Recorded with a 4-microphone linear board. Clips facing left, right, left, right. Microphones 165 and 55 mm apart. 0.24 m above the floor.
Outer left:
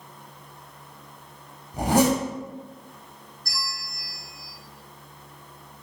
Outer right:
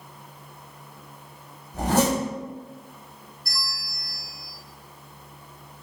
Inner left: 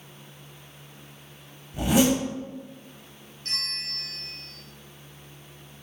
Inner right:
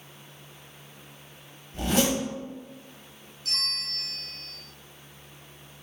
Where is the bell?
45° left (ahead or behind), 0.9 m.